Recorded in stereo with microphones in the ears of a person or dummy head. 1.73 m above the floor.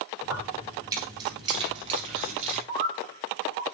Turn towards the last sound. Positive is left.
turn(degrees=-55)  # may be behind; listen again after turning